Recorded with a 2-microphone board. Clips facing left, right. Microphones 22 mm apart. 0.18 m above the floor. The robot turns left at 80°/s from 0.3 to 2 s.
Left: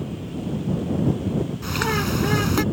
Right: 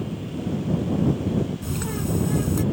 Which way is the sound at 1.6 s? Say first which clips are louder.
Left 5 dB; 120° left.